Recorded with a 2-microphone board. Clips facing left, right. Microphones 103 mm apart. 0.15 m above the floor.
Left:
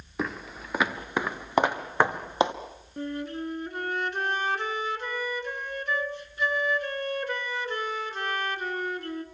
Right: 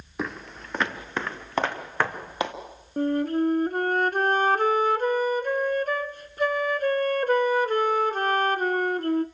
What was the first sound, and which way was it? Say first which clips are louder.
Footsteps: even; centre (ahead or behind).